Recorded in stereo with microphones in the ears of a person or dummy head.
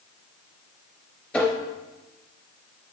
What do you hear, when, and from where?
1.3 s tapping: 10° left (ahead or behind), 2.5 m